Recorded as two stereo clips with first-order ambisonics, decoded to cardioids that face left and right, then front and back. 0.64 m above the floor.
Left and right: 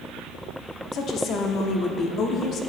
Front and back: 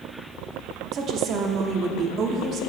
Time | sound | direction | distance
0.9 | a woman speaking | 135° left | 0.8 m